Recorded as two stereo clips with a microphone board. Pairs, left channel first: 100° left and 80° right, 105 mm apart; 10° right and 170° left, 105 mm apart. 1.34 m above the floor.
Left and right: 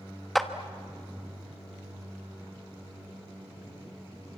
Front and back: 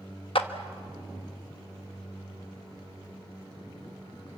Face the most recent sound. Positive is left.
turn(degrees=10)